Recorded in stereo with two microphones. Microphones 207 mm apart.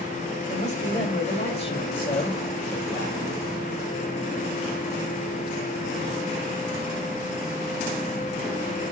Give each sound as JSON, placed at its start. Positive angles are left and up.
{"t": 0.5, "sound": "a man speaking", "side_deg": 35, "distance_m": 5.0}